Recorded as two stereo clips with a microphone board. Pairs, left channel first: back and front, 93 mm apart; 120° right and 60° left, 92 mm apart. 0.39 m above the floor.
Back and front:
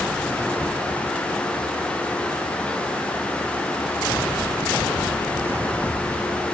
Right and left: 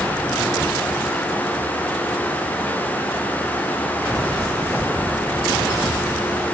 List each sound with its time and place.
Only background noise.